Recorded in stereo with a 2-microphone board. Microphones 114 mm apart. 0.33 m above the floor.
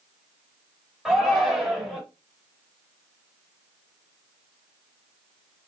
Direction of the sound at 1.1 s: 5° right (ahead or behind).